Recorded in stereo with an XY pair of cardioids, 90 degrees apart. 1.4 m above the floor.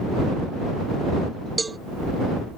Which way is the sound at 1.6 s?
25° right.